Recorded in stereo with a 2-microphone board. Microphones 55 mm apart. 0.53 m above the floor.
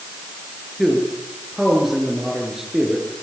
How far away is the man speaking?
About 7.5 m.